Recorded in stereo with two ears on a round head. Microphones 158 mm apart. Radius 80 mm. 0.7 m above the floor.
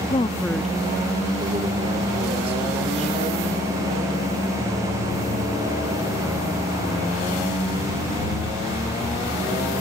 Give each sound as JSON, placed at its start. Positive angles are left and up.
{"t": 0.1, "sound": "a woman speaking", "side_deg": 35}